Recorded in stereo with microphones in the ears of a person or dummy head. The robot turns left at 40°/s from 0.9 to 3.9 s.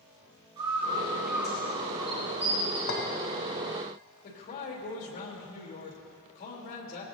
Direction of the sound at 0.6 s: 25° right (ahead or behind).